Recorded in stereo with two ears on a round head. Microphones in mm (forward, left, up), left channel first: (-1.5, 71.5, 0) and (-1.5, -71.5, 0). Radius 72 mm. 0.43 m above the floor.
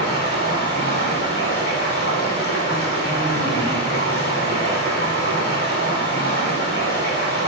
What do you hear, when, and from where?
0.0 s running water: 70° left (ahead or behind), 1.7 m